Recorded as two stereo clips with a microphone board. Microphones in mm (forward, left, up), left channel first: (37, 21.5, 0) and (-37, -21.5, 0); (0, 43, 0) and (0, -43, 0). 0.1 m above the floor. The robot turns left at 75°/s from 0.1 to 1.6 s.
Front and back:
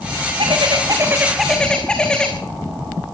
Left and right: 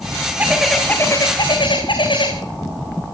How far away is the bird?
About 4 m.